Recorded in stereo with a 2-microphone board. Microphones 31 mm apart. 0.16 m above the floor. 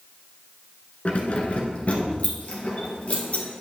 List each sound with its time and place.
1.1 s keys jangling: 45° left (ahead or behind), 1.3 m